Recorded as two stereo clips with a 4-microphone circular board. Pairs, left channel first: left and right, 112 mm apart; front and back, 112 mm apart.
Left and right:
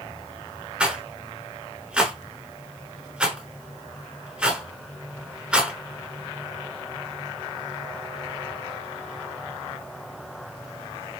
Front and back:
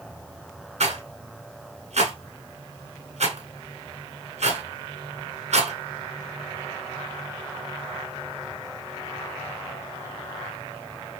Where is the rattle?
170° right, 0.9 m.